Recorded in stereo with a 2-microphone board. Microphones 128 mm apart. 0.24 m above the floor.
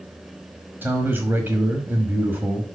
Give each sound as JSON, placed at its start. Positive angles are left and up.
{"t": 0.8, "sound": "a man speaking", "side_deg": -15, "distance_m": 1.2}